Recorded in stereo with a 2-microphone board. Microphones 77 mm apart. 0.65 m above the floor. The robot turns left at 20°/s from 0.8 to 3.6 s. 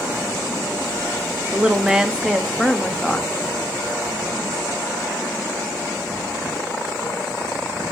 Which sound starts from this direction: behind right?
A woman speaking, at 1.5 s.